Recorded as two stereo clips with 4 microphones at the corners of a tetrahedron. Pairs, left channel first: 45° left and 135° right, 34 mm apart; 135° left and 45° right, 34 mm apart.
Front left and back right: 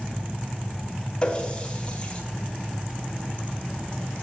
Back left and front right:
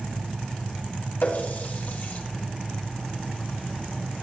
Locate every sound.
1.2 s a running tap: 110° left, 2 m